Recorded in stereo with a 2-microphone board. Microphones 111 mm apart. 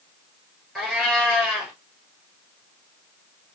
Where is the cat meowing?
Centre (ahead or behind), 1.9 m.